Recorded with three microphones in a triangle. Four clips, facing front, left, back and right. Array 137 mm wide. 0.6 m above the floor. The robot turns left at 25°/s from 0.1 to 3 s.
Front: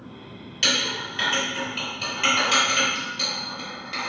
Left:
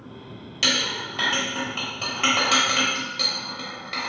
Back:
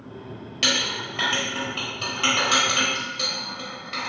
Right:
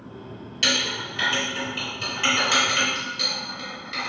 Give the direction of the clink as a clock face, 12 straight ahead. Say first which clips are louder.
Even, even; 7 o'clock.